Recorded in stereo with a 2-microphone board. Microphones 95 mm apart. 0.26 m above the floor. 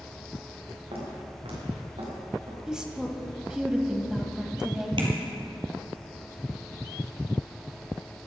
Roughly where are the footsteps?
Right.